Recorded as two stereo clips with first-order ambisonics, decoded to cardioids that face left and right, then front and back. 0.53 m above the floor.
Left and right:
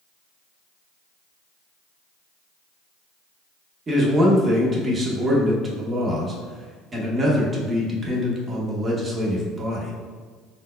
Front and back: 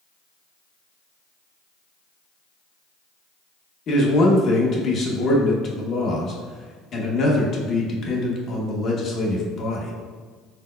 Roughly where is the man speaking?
Ahead right.